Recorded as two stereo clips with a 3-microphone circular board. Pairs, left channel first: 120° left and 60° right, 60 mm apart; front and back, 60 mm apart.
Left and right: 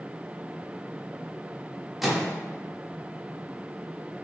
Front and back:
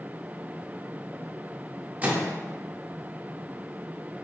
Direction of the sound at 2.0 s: 150° right.